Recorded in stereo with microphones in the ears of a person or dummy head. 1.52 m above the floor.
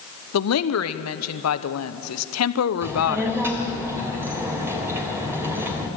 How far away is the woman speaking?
About 0.9 m.